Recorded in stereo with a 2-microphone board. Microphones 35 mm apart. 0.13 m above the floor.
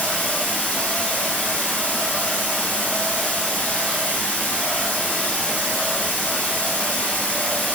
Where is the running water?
55° left (ahead or behind), 1.3 m.